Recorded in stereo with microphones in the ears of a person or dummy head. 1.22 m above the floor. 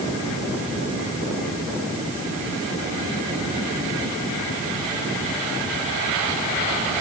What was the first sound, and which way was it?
Only background noise.